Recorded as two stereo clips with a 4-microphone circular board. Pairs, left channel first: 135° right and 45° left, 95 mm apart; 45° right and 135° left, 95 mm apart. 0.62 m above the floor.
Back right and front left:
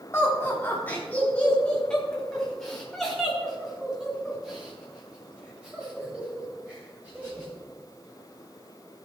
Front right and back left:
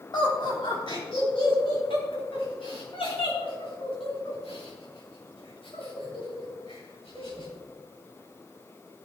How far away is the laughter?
About 3.5 m.